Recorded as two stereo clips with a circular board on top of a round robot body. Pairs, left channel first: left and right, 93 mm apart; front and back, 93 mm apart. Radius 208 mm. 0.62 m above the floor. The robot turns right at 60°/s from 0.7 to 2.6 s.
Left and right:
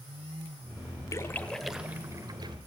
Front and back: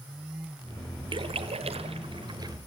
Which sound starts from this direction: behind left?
A splash, at 1.1 s.